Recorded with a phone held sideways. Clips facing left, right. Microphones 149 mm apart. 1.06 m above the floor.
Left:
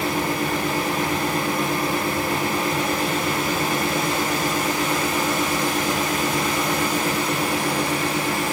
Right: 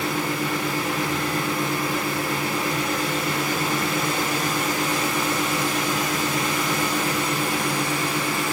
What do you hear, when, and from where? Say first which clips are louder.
0.0 s a fan: left 2 dB; 50° left (ahead or behind), 1.1 m